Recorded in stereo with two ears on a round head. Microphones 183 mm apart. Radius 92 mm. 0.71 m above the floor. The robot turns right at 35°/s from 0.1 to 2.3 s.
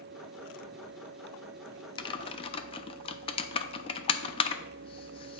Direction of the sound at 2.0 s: 20° left (ahead or behind).